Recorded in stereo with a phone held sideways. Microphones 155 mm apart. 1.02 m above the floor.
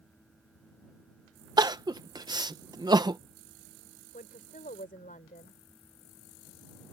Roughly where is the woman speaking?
Left.